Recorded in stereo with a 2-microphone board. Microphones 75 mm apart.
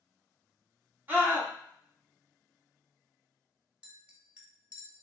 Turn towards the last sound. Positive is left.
turn(degrees=-15)  # may be behind; listen again after turning